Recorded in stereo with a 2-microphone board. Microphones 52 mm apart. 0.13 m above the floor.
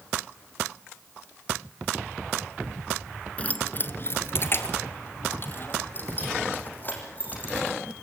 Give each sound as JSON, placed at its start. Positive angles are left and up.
{"t": 3.4, "sound": "keys jangling", "side_deg": 25, "distance_m": 1.2}